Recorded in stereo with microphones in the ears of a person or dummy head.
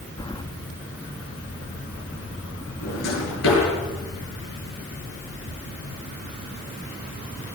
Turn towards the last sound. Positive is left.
turn(degrees=80)